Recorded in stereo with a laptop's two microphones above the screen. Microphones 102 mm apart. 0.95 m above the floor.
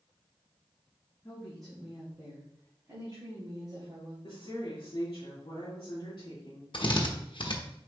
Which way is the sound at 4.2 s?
55° left (ahead or behind).